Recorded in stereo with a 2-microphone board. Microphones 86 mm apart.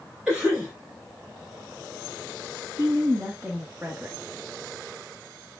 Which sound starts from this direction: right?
A woman speaking, at 2.8 s.